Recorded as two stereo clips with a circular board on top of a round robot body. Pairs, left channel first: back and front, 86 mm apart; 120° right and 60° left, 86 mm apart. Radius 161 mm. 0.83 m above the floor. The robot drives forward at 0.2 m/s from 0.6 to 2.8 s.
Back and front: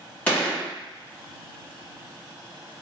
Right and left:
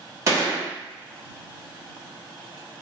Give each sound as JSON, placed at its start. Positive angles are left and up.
{"t": 0.3, "sound": "a gunshot", "azimuth_deg": 110, "distance_m": 1.2}